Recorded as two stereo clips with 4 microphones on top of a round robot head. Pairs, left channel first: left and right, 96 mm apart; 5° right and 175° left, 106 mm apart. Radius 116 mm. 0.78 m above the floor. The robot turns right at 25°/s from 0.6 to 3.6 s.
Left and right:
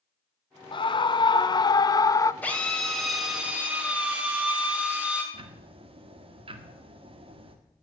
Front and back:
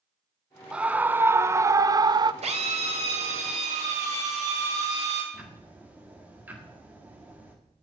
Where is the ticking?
110° right, 1.8 m.